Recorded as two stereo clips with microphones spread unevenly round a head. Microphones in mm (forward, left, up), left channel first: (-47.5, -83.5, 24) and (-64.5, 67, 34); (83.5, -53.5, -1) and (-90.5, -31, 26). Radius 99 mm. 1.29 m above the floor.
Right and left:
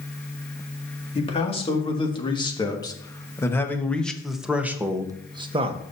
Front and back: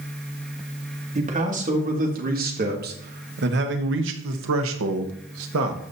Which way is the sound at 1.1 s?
135° right.